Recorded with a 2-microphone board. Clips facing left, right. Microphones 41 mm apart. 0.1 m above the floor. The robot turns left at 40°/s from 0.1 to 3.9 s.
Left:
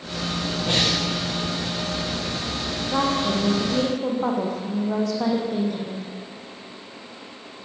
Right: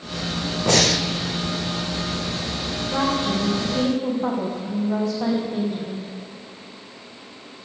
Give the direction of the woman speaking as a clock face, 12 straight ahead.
7 o'clock.